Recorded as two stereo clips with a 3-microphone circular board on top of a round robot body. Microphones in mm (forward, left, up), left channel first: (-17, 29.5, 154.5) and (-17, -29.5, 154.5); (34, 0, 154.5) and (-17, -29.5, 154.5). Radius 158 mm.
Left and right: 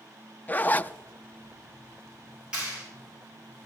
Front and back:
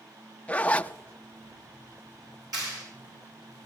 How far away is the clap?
About 8 m.